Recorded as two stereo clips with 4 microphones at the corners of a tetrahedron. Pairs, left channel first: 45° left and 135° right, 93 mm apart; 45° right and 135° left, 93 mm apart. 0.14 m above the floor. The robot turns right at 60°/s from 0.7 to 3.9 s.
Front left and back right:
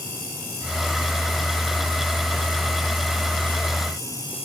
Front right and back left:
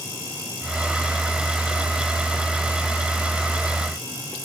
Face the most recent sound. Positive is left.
No sound to turn to.